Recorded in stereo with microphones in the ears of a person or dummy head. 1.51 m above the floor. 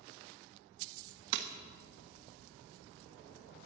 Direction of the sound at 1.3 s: 60° right (ahead or behind).